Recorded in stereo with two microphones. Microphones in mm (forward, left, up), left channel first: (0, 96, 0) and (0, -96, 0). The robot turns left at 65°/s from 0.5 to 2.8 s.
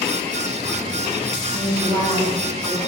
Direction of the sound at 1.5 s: 65° left.